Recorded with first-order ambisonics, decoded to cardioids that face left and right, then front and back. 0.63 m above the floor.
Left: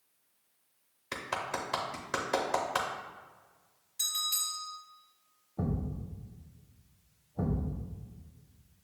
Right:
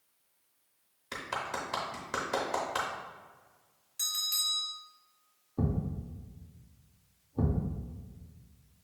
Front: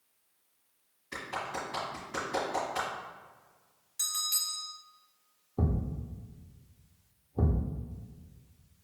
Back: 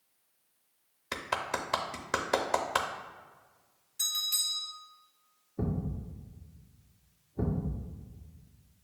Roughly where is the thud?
Ahead right.